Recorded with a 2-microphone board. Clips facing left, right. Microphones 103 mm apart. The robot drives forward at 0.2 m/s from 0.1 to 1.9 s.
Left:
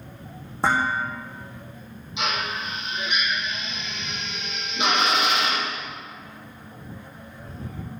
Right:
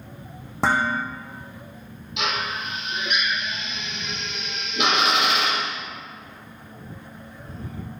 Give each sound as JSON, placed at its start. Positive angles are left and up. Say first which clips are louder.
{"t": 0.6, "sound": "dishes clattering", "louder": "right 1 dB", "side_deg": -80, "distance_m": 5.0}
{"t": 2.2, "sound": "a drill", "louder": "even", "side_deg": -75, "distance_m": 5.0}